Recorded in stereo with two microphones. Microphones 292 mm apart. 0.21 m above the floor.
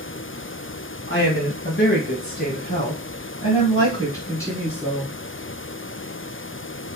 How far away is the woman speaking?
About 1.5 m.